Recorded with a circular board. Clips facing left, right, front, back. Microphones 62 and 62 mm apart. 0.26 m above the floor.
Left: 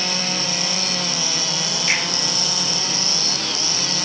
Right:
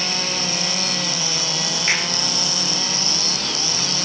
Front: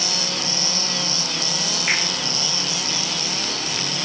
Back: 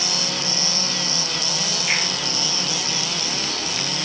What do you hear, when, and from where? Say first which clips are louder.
1.9 s a finger snap: even, front 1 dB; 45° right, 9 m